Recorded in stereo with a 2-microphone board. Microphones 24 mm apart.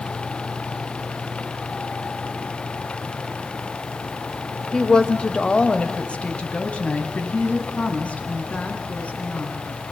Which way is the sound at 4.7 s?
30° left (ahead or behind).